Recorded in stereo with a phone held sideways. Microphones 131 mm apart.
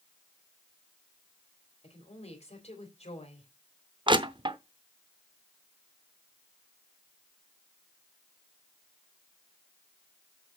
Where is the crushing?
40° right (ahead or behind), 0.7 m.